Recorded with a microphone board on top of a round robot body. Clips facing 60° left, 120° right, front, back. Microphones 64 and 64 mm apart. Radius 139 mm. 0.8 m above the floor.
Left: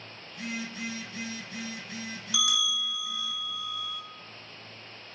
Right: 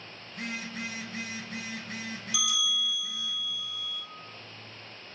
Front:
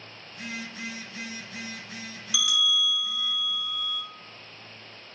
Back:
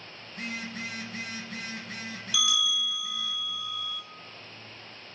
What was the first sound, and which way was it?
A phone buzzing, 145° right.